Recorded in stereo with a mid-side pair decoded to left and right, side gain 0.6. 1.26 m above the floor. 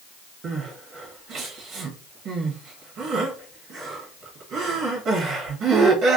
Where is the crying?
50° right, 1.3 m.